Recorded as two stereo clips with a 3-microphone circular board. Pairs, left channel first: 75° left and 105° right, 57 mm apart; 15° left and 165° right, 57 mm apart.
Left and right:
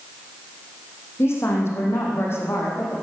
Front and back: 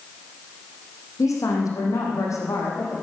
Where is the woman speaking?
35° left, 4.5 m.